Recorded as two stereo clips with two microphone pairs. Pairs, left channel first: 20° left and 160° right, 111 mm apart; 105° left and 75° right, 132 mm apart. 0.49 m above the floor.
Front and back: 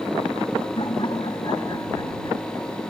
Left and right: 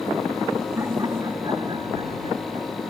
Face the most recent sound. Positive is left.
turn(degrees=-35)